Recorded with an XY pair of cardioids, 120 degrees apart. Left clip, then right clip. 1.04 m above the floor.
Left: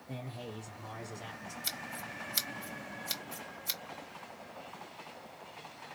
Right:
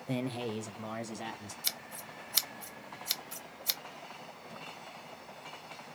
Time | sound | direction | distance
0.1 | a man speaking | 65° right | 0.6 m
1.6 | scissors | 30° right | 0.8 m